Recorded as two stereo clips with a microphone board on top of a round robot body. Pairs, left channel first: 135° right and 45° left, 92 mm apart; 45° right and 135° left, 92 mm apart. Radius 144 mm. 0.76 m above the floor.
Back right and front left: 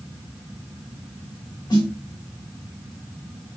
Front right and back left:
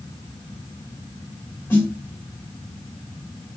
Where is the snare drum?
105° right, 1.4 m.